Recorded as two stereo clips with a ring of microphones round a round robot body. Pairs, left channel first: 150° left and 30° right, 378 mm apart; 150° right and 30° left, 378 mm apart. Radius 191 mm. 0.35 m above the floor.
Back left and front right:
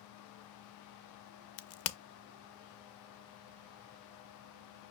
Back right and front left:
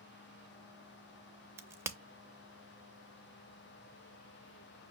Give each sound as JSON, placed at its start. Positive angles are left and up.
{"t": 1.6, "sound": "a crack", "azimuth_deg": 110, "distance_m": 0.5}